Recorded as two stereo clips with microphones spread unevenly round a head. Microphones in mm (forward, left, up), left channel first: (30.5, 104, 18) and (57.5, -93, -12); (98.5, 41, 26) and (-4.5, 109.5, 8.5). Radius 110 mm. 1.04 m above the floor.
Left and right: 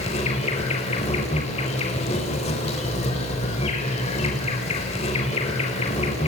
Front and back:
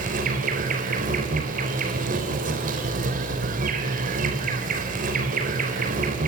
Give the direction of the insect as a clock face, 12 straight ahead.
7 o'clock.